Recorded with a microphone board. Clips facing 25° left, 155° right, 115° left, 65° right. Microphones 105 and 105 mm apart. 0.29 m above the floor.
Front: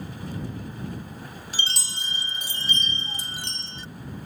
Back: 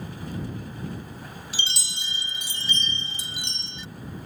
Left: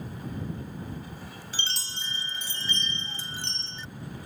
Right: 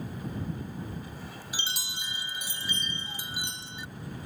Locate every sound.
1.5 s a chime: 5° left